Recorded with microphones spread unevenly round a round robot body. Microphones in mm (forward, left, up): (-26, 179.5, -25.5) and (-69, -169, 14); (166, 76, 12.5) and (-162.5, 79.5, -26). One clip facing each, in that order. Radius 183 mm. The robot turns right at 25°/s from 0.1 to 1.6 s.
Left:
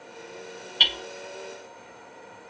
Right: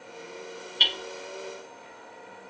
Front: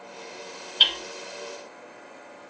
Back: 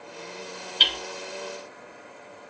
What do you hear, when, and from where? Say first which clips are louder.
0.8 s hammering: even, back 2 dB; 115° left, 0.8 m; by 1.0 s 120° left, 0.8 m